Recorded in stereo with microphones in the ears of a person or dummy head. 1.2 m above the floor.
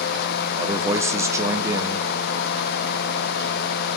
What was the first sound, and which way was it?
A man speaking, 15° right (ahead or behind).